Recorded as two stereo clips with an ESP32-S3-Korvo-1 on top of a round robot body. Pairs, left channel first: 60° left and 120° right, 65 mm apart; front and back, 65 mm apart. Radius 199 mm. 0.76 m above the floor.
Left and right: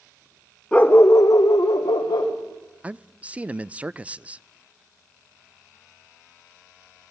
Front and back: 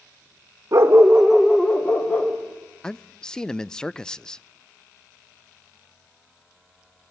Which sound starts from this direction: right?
A man speaking, at 2.8 s.